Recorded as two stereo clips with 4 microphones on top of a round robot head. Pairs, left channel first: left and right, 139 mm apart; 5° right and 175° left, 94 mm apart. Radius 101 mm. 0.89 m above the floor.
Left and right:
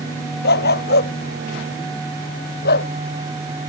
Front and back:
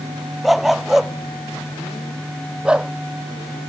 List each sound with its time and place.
0.4 s a dog barking: 85° left; by 2.9 s 95° left